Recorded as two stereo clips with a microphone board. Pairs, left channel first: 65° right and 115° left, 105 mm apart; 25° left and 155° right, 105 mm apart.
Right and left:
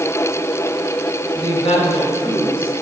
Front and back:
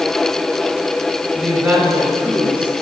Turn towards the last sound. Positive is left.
turn(degrees=-75)